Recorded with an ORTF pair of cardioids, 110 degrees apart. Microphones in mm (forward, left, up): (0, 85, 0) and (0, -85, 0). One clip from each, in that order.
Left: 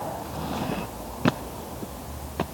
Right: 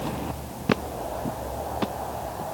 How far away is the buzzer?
No buzzer in this recording.